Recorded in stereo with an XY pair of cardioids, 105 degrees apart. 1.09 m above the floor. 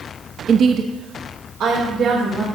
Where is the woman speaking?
50° right, 1.0 m; by 2.5 s 80° right, 4 m.